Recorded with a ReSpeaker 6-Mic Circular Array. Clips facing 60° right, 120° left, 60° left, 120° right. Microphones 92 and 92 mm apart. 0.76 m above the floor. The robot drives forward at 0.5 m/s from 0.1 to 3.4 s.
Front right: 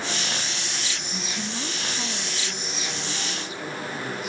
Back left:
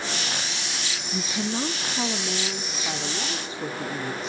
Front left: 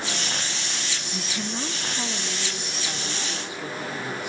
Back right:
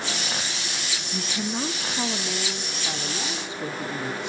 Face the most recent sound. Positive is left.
turn(degrees=175)